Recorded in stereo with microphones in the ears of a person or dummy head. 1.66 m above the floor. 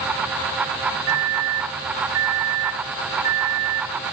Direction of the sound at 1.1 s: 75° right (ahead or behind).